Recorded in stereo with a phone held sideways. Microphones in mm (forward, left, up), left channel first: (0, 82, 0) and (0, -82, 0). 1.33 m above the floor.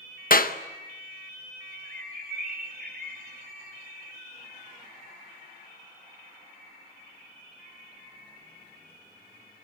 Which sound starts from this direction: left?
A clap, at 0.3 s.